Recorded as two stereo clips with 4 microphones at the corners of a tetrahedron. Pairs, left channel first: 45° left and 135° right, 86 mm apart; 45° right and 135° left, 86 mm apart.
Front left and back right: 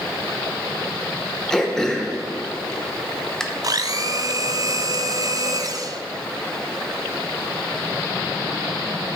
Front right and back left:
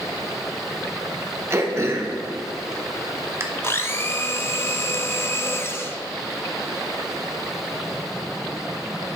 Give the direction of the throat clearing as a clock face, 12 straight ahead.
8 o'clock.